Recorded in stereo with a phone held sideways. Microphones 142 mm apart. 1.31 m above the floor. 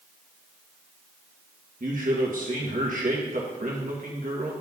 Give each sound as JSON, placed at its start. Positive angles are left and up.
{"t": 1.8, "sound": "a man speaking", "side_deg": -70, "distance_m": 2.0}